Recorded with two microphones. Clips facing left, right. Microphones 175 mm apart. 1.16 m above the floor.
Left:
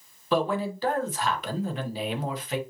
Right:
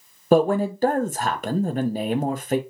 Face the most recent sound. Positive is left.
turn(degrees=-45)  # may be behind; listen again after turning